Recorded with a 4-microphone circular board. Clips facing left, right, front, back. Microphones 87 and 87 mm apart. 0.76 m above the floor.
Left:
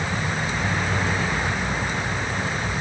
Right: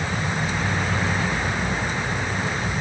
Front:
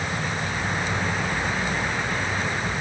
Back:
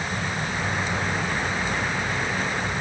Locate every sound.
Only background noise.